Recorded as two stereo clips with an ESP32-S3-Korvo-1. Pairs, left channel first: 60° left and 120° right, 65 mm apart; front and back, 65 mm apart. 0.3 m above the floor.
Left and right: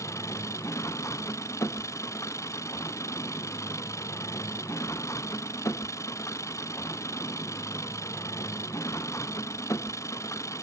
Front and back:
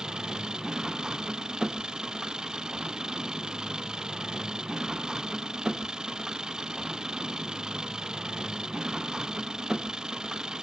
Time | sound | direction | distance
0.0 | an engine running | 100° left | ?